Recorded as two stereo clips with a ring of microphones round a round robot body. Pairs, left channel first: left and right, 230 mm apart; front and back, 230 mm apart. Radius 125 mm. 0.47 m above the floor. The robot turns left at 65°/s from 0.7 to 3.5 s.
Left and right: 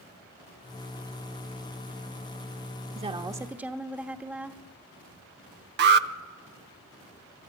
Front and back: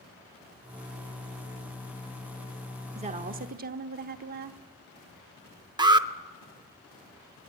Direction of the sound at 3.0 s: 135° right.